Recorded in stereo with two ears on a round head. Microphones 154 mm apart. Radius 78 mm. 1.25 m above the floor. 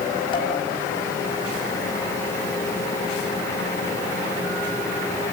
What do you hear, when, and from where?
0.3 s dishes clattering: 30° left (ahead or behind), 6 m